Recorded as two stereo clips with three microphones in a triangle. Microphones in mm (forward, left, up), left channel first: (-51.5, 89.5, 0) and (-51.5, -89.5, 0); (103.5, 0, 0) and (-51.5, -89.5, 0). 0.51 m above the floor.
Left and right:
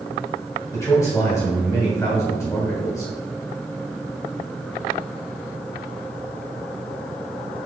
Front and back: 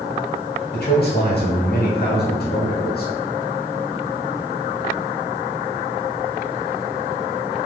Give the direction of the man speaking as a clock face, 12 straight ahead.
11 o'clock.